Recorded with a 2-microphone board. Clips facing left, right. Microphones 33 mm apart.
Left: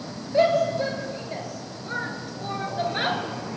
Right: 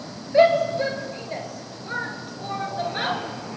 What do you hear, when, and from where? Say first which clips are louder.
0.3 s a shout: right 3 dB; 25° right (ahead or behind), 4 m; by 3.2 s 10° left (ahead or behind), 3.5 m